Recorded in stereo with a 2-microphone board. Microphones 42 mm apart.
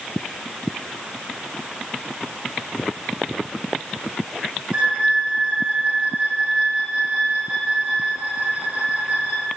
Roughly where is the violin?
Right.